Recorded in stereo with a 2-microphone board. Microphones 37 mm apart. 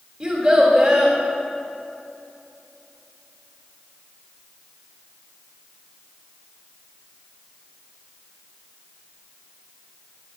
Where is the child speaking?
20° right (ahead or behind), 1.8 m.